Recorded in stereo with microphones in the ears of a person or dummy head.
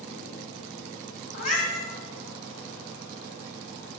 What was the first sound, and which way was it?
A cat meowing, 50° left (ahead or behind).